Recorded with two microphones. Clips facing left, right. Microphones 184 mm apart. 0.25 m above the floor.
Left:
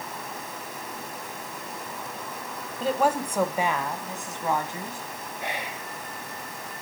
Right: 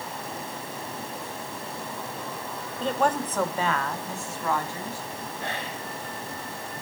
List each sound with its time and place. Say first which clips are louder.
2.8 s a woman speaking: left 1 dB; 5° left (ahead or behind), 1.2 m; by 5.0 s 20° left (ahead or behind), 2.0 m
5.4 s whispering: left 1 dB; 15° left (ahead or behind), 0.9 m